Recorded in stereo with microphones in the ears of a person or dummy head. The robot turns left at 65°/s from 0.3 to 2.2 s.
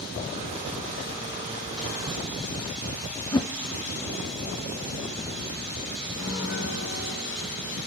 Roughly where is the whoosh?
Centre.